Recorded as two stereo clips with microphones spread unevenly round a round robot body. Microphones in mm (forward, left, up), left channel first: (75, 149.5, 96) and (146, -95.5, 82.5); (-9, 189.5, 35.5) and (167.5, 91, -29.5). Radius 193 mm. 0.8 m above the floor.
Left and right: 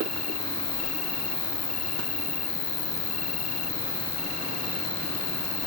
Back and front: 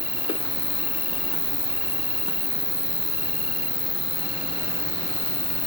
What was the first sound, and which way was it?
An insect, 80° left.